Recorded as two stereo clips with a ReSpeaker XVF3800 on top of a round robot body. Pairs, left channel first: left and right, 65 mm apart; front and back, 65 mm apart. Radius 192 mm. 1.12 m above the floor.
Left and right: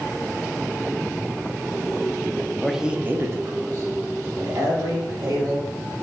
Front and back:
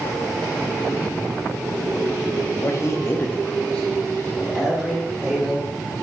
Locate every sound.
2.6 s a man speaking: 5° left, 0.6 m; by 5.7 s 95° right, 1.8 m